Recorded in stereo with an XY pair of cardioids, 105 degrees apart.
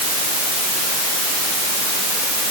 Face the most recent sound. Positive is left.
No sound to turn to.